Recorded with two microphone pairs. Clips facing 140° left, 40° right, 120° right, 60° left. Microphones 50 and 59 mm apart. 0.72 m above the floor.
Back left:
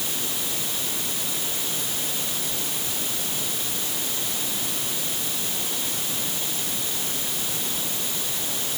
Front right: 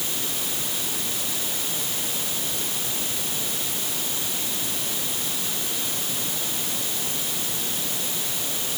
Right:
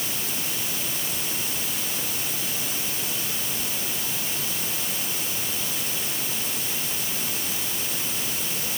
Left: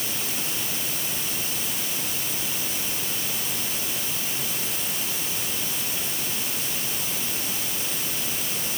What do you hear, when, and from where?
Only background noise.